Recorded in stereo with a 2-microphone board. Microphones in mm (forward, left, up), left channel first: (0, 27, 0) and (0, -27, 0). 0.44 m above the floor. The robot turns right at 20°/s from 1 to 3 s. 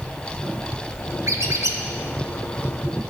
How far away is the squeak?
About 1.1 m.